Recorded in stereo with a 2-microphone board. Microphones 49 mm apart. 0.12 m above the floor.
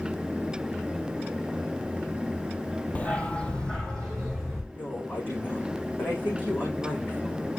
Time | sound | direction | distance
3.0 | a dog barking | 30° left (ahead or behind) | 1.2 m
4.7 | a woman speaking | 40° left (ahead or behind) | 6.5 m